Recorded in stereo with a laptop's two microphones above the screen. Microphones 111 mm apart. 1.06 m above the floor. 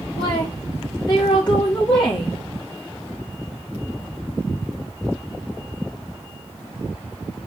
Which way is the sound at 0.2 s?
45° left (ahead or behind).